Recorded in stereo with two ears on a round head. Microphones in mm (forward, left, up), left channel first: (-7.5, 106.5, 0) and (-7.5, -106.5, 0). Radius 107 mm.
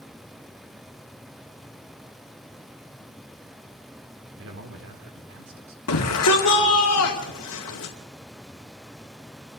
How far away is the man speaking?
About 2 m.